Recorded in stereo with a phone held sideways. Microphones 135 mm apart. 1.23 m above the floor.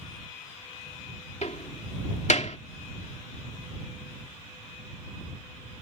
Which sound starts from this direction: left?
A door slam, at 1.4 s.